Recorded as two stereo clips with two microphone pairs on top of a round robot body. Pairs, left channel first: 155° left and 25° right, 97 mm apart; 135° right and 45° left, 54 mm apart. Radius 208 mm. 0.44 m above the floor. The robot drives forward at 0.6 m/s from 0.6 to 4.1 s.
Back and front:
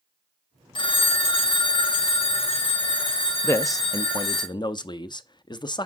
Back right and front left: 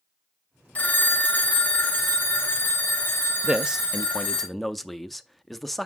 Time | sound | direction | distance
0.8 | a phone ringing | 170° left | 1.2 m
3.4 | a man speaking | 100° left | 0.8 m